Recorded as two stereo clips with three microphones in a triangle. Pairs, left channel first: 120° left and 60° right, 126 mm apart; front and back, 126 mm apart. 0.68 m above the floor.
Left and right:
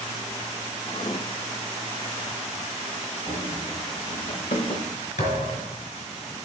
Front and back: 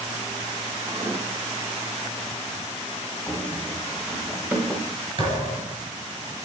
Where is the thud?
135° left, 5 m.